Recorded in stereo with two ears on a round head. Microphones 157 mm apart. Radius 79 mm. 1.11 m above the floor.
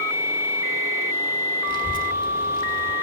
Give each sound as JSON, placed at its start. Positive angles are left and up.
{"t": 1.7, "sound": "a child speaking", "side_deg": 25, "distance_m": 1.1}